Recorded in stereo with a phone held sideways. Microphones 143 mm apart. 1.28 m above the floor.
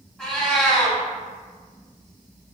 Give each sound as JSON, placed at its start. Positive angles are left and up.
{"t": 0.2, "sound": "a cat meowing", "side_deg": 0, "distance_m": 1.2}